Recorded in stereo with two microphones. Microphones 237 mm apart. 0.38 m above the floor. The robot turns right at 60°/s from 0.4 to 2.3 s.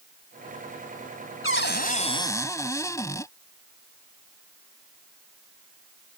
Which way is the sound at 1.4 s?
115° left.